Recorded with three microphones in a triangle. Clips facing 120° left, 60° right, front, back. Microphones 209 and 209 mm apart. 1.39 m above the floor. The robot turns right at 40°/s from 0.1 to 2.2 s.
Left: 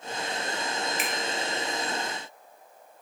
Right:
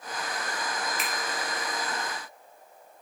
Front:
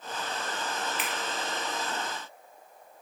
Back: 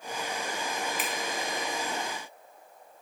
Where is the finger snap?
155° right, 0.8 m; by 1.1 s 150° right, 0.8 m.